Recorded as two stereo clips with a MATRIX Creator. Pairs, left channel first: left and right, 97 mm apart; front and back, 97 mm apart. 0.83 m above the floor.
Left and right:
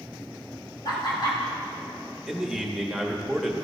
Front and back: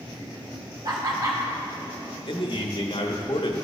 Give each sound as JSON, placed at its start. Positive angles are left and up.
{"t": 0.8, "sound": "laughter", "azimuth_deg": 130, "distance_m": 2.5}
{"t": 2.3, "sound": "a man speaking", "azimuth_deg": -5, "distance_m": 1.0}